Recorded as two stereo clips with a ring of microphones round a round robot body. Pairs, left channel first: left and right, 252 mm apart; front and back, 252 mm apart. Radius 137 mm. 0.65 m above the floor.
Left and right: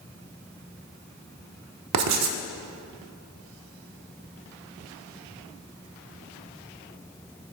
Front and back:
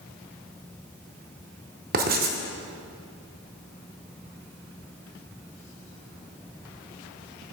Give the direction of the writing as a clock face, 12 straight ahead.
4 o'clock.